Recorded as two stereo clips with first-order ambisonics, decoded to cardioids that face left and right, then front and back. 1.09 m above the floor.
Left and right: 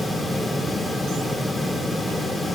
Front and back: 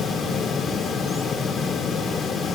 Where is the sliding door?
I don't hear a sliding door.